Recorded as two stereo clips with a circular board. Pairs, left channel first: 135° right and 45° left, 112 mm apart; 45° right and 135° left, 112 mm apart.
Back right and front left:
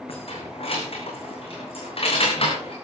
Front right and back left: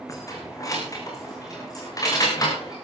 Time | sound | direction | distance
0.1 | keys jangling | 105° right | 5 m